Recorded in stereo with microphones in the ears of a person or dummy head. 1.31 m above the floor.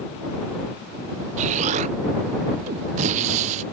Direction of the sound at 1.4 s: 35° right (ahead or behind).